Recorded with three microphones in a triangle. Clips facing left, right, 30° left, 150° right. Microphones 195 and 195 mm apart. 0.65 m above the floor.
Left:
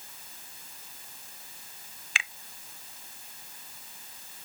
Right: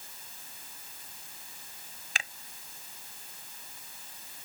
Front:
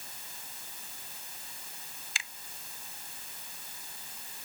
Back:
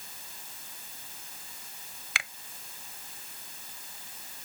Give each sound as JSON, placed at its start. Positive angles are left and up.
{"t": 2.1, "sound": "a finger snap", "azimuth_deg": -135}